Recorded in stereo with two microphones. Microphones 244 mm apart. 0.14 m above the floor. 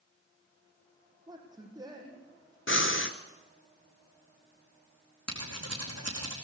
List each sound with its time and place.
1.3 s a man speaking: 15° right (ahead or behind), 5.5 m
2.7 s breathing: 55° left (ahead or behind), 1.0 m
5.3 s scissors: 80° right, 5 m